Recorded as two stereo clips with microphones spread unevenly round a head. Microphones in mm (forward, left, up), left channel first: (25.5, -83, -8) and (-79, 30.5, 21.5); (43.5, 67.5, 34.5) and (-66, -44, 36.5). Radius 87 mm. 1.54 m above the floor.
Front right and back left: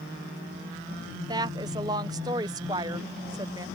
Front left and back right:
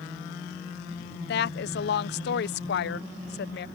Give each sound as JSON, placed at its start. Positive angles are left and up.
{"t": 1.3, "sound": "a woman speaking", "azimuth_deg": 65}